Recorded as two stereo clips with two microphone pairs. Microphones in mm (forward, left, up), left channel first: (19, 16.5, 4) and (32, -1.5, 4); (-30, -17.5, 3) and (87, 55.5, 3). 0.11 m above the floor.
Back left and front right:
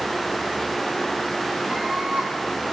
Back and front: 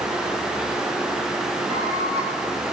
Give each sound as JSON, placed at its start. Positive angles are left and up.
{"t": 1.7, "sound": "a scream", "azimuth_deg": -5, "distance_m": 5.0}